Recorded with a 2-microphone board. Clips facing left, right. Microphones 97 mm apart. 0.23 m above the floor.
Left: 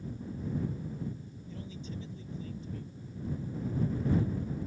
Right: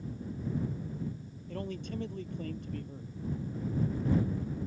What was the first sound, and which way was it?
A man speaking, 60° right (ahead or behind).